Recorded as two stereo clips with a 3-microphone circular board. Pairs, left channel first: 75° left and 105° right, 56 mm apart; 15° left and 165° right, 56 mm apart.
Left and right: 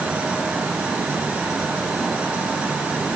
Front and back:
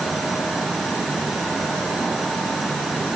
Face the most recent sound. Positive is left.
No sound to turn to.